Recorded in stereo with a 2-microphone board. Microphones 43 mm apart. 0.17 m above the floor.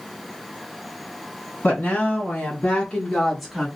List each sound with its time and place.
1.6 s a woman speaking: 50° left (ahead or behind), 2.5 m; by 3.7 s 10° right (ahead or behind), 1.4 m